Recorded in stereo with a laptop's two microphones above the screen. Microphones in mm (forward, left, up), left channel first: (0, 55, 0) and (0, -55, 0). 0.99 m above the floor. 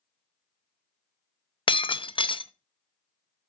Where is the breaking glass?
50° left (ahead or behind), 0.5 m.